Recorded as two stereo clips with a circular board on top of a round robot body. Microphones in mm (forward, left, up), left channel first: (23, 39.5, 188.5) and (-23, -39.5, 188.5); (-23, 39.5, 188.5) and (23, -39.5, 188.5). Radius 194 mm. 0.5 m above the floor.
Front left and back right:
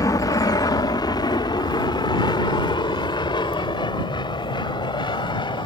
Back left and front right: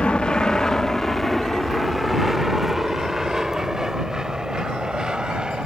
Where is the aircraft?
45° left; by 5.7 s 20° left.